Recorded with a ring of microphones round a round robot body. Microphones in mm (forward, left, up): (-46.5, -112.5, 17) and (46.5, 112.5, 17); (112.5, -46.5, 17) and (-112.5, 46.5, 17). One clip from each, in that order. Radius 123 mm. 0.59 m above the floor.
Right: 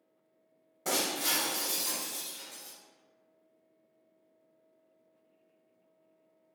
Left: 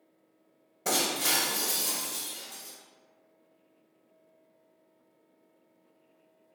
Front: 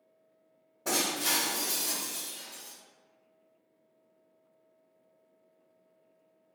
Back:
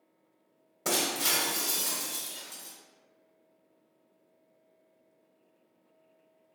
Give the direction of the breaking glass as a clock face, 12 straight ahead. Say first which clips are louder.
Left 3 dB, back 1 dB; 7 o'clock.